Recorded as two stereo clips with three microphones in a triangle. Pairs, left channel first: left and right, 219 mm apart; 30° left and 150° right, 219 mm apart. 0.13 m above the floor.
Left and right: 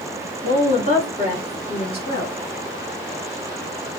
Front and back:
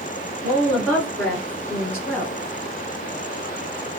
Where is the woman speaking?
115° left, 1.7 m; by 2.4 s 75° left, 1.3 m.